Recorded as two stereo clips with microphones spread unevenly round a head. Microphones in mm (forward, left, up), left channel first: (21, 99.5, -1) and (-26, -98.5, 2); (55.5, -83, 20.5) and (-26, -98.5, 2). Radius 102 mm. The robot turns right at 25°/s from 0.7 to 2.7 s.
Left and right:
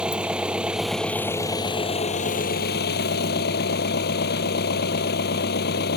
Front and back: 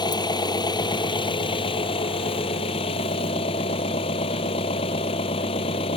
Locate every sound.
0.0 s an engine running: 20° right; by 6.0 s 30° left